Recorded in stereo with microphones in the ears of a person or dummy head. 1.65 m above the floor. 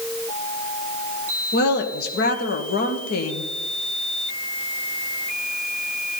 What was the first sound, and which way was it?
A woman speaking, 60° left (ahead or behind).